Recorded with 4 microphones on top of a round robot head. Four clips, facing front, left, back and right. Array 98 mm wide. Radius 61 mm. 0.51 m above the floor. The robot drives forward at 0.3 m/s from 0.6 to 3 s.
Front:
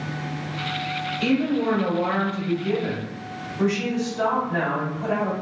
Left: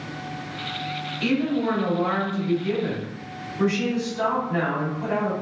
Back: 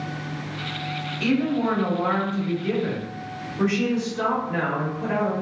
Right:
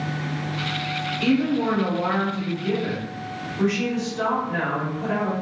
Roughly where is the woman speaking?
Behind.